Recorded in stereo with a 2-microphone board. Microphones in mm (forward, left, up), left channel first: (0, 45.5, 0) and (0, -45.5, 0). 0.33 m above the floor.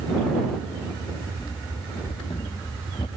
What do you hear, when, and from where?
1.4 s running footsteps: 45° left (ahead or behind); by 3.1 s 75° left (ahead or behind)